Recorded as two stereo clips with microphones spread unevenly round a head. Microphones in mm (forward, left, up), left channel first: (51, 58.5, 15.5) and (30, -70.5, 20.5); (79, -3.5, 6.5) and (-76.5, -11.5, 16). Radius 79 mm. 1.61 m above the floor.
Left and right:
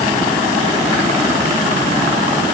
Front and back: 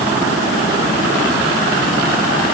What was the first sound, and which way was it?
Only background noise.